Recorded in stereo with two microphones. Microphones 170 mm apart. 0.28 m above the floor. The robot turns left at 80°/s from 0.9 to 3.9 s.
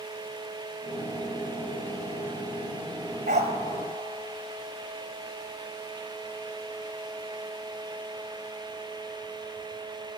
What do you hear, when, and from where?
3.3 s a dog barking: 50° right (ahead or behind), 1.2 m; by 3.5 s 30° right (ahead or behind), 1.2 m